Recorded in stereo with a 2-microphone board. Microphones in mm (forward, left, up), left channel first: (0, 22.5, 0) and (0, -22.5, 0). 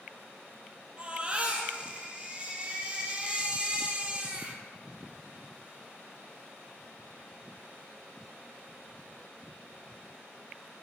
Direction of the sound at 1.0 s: 30° right (ahead or behind).